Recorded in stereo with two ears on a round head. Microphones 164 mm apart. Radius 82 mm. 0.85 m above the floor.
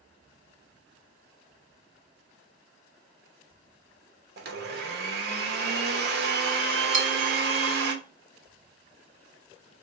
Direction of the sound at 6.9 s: 40° right (ahead or behind).